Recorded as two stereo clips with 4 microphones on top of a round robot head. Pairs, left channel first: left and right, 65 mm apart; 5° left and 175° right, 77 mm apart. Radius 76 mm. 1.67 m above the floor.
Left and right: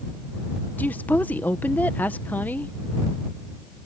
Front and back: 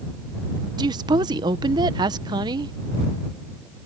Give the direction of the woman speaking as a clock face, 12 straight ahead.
7 o'clock.